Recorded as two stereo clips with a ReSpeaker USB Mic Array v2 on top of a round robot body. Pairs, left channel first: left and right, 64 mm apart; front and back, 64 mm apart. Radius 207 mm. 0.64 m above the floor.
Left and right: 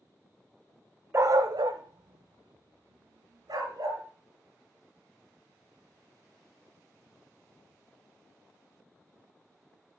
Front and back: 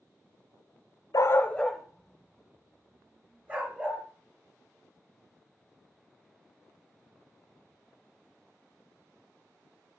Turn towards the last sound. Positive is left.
turn(degrees=-115)